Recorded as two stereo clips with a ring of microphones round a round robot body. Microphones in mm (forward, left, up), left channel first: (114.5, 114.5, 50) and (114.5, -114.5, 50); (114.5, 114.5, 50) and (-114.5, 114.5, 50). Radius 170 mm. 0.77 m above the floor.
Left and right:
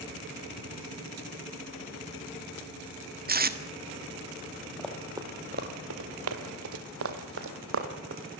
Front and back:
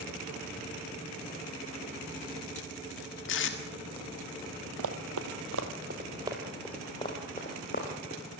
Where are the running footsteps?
175° left, 1.6 m; by 8.2 s 65° right, 3 m.